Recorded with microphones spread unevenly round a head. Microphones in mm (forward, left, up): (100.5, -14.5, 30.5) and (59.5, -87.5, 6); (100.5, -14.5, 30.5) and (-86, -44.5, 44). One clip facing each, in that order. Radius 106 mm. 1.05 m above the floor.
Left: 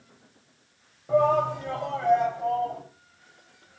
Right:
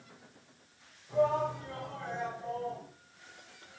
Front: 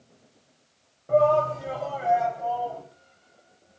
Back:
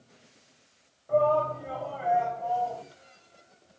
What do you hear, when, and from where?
1.1 s a shout: 60° left, 5.5 m